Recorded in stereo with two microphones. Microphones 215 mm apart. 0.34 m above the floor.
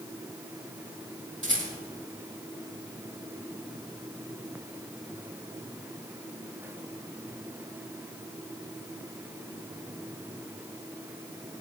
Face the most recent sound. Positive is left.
turn(degrees=-65)  # may be behind; listen again after turning